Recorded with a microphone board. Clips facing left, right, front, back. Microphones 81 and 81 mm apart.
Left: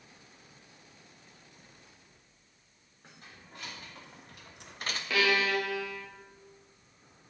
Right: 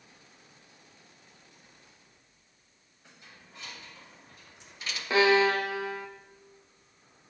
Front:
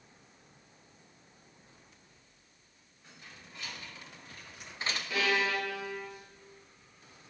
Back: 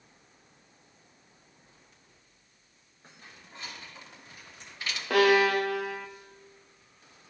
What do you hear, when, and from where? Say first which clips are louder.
3.0 s keys jangling: left 2 dB, back 1 dB; 130° left, 3 m; by 5.0 s 40° left, 0.8 m
5.1 s a violin: right 6 dB, back 10 dB; 150° right, 0.7 m